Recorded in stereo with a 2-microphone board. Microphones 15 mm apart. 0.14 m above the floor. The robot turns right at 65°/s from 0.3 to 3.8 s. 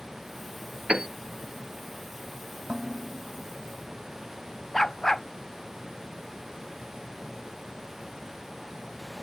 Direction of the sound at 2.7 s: 85° right.